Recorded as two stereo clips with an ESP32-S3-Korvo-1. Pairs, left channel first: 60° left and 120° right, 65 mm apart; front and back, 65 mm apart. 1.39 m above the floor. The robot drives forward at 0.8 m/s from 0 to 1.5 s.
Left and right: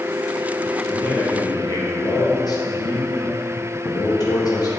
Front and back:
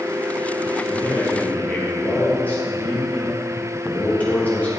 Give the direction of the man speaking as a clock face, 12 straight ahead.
11 o'clock.